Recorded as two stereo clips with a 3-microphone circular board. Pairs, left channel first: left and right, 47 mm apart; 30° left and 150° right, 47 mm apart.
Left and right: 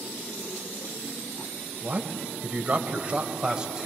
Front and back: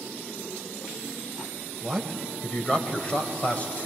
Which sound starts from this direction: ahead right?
A man speaking, at 1.8 s.